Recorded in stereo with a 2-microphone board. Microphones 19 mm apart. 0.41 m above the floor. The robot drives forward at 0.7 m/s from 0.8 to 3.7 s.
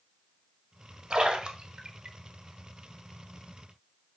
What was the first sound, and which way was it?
A splash, 50° right (ahead or behind).